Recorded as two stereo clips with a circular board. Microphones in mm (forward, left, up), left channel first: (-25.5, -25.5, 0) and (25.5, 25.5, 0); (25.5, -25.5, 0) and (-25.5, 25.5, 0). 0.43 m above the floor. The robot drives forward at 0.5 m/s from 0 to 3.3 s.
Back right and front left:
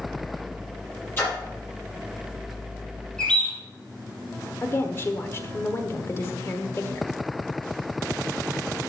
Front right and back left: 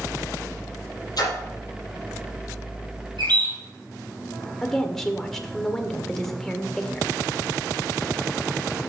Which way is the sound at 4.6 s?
130° right.